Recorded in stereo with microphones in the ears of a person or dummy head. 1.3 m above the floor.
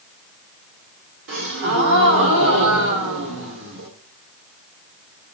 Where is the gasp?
70° right (ahead or behind), 1.8 m.